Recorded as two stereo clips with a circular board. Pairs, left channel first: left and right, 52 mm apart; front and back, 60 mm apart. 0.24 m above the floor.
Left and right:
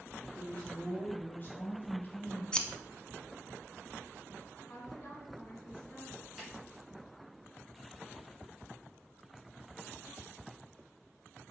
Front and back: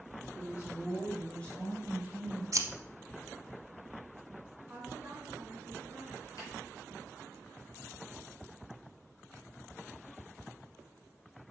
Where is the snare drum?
5° right, 3 m.